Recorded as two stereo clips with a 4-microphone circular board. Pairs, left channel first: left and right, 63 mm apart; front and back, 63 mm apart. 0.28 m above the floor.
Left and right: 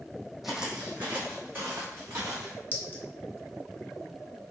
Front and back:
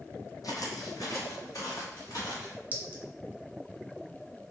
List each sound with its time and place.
0.4 s footsteps: straight ahead, 0.6 m; by 2.6 s 40° right, 1.5 m
2.7 s a clink: 135° left, 0.6 m